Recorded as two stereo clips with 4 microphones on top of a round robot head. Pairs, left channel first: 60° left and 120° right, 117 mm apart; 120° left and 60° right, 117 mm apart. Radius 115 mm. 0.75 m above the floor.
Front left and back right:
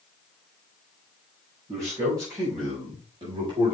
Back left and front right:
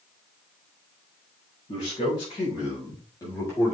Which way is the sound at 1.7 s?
170° left.